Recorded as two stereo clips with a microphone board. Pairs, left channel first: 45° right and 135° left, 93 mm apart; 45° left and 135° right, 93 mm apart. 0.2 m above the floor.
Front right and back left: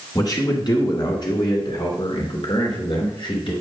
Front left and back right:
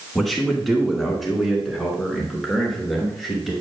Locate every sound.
0.1 s a man speaking: 45° right, 2 m